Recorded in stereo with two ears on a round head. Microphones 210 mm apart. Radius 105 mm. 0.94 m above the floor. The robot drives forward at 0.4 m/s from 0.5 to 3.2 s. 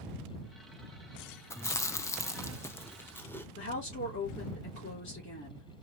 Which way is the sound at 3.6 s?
55° left (ahead or behind).